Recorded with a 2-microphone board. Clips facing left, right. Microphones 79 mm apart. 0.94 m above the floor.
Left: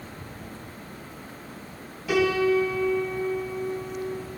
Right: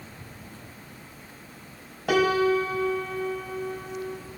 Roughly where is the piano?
Right.